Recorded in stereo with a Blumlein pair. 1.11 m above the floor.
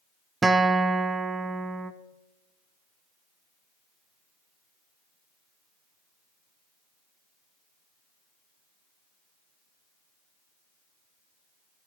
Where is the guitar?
10° right, 1.0 m.